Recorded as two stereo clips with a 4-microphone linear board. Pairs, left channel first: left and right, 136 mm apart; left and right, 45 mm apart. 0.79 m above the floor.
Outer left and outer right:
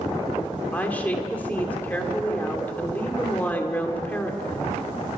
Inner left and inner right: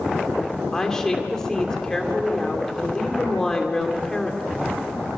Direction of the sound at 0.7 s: 10° left (ahead or behind).